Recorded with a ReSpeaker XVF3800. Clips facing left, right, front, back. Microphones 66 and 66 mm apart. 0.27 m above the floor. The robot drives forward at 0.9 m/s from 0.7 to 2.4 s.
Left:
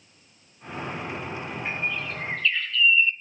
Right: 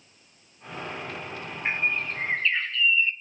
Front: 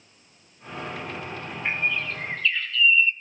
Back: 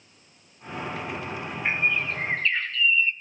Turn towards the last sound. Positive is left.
turn(degrees=-135)